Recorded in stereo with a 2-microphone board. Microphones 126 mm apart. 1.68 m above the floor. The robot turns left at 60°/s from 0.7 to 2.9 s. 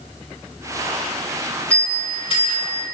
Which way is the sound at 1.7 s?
170° left.